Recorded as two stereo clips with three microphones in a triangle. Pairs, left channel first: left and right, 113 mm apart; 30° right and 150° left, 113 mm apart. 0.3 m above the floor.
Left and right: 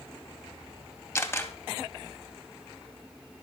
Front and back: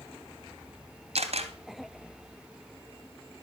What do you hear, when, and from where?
1.1 s a camera shutter: 155° left, 2.5 m